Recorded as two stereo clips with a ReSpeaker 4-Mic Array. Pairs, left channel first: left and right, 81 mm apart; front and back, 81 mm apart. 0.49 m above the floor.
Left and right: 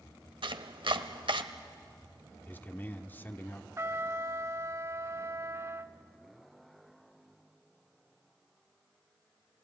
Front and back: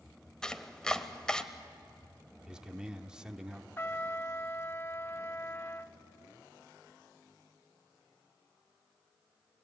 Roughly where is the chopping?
Right.